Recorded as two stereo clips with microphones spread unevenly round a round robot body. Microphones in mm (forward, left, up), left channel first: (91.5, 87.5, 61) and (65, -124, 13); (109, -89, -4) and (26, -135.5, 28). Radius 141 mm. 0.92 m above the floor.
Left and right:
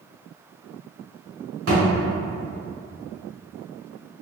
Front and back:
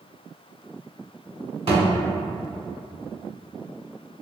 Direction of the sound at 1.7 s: 145° right.